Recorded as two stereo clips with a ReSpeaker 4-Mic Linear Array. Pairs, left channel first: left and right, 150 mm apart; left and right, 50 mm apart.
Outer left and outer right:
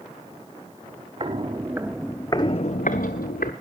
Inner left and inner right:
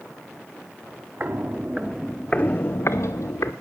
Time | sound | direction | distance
1.2 | footsteps | 35° right (ahead or behind) | 1.5 m